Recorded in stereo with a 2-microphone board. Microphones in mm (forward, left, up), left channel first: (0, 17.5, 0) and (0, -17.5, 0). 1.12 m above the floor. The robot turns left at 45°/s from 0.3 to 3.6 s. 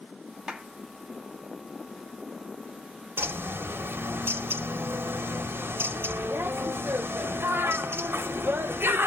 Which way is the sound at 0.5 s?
15° right (ahead or behind).